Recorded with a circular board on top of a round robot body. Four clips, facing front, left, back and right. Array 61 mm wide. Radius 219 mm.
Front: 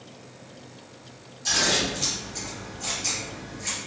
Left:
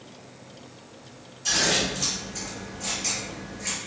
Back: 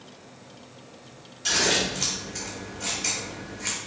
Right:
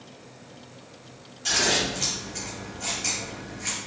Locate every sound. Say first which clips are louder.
1.4 s scissors: even, back 1 dB; 160° right, 1.1 m